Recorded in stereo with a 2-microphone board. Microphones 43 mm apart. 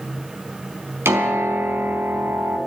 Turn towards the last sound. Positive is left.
turn(degrees=-80)